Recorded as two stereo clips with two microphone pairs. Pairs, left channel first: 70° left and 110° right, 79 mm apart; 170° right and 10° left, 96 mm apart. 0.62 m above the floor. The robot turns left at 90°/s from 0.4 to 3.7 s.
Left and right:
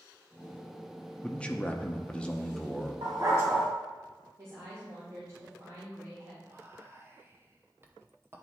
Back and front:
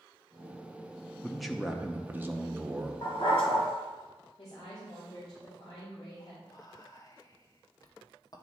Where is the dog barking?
125° right, 2.5 m; by 3.7 s 175° left, 2.5 m.